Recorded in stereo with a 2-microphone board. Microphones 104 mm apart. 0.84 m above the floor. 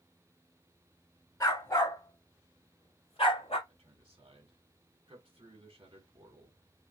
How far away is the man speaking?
About 1.9 m.